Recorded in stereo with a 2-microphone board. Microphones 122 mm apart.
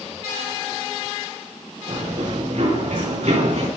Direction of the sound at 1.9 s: 75° right (ahead or behind).